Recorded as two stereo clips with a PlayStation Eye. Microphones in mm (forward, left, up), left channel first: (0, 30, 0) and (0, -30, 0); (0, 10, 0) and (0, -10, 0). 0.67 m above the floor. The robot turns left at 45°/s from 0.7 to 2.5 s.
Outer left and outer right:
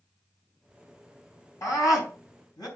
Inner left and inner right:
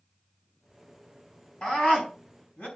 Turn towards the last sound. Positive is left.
turn(degrees=85)